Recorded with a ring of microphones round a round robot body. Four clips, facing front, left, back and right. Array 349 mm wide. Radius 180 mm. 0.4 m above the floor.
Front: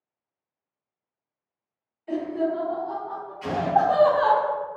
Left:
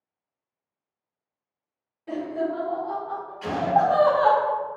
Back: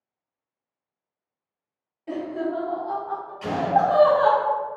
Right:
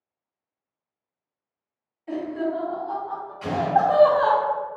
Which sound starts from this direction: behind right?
An explosion, at 3.4 s.